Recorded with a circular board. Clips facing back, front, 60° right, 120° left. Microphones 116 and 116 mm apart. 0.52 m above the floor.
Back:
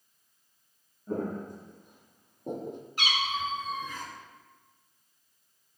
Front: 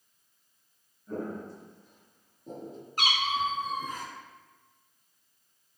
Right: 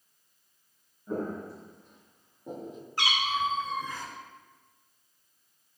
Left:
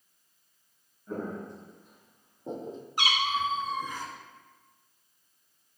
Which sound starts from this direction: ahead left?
A cat meowing, at 3.0 s.